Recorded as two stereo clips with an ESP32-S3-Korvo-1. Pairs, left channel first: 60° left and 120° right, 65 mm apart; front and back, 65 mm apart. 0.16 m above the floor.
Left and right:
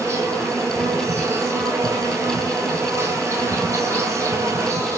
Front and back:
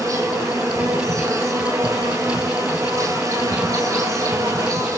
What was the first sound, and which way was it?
An insect, 160° right.